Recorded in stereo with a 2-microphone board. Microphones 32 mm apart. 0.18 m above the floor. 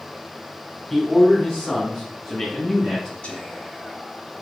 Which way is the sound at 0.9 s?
10° left (ahead or behind).